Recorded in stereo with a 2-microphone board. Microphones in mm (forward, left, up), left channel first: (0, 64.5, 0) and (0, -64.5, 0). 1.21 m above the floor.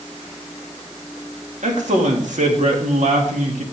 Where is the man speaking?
70° right (ahead or behind), 2.5 m.